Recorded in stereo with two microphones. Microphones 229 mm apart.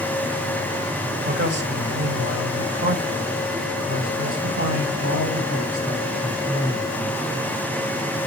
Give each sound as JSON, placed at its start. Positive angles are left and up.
{"t": 1.2, "sound": "a man speaking", "side_deg": -45, "distance_m": 1.1}